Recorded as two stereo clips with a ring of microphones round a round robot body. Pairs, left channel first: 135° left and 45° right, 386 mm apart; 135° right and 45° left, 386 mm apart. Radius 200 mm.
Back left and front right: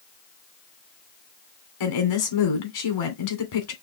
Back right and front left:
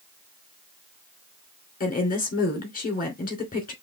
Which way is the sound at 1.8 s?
155° left.